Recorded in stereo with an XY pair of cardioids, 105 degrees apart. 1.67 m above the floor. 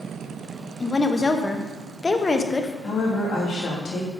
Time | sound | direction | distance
0.8 | a woman speaking | 25° left | 0.9 m
2.8 | a woman speaking | 50° left | 3 m